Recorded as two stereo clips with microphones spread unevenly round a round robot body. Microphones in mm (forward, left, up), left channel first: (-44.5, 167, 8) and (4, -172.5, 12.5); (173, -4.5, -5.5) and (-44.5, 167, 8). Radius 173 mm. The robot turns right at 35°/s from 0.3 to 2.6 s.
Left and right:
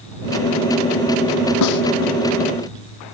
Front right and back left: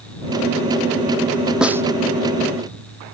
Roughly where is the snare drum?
Ahead left.